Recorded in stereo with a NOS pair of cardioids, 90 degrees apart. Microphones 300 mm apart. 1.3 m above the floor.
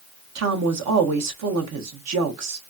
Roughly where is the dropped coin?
No dropped coin in this recording.